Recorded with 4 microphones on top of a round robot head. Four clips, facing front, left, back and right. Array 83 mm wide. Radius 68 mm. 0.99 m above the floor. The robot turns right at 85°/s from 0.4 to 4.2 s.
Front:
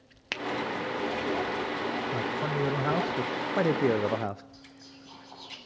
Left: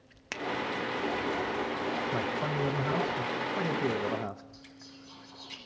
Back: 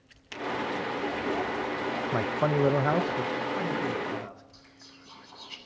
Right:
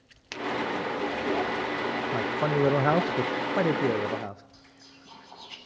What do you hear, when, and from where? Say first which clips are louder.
0.3 s a finger snap: right 1 dB, front 2 dB; 25° left, 0.6 m; by 0.4 s 30° left, 0.6 m
2.1 s a man speaking: right 5 dB, back 4 dB; 175° right, 0.6 m; by 4.4 s 5° left, 0.6 m
4.5 s whispering: left 3 dB, front 3 dB; 45° right, 9.5 m